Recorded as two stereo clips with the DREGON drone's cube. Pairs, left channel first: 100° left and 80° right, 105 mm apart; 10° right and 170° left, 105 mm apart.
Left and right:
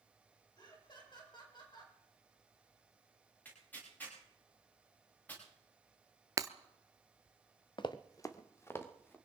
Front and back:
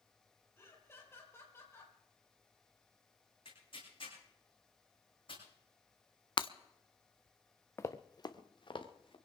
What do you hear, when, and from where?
0.6 s laughter: 55° left, 4.5 m
3.5 s tearing paper: 25° left, 8 m
6.4 s breaking glass: 35° right, 0.6 m
7.8 s running footsteps: 55° left, 0.9 m; by 9.2 s 30° left, 2.5 m